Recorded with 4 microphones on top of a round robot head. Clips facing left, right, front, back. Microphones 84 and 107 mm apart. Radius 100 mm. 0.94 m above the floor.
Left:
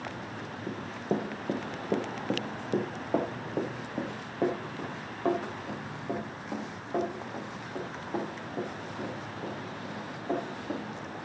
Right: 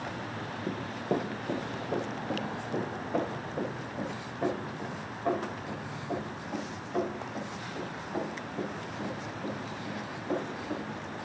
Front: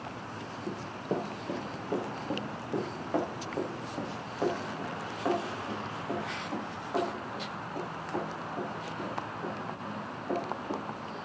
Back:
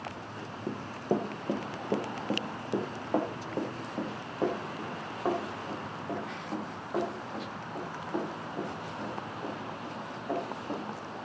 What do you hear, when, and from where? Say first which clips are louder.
0.7 s running footsteps: even, back 4 dB; 160° right, 0.9 m; by 11.2 s 100° left, 7.5 m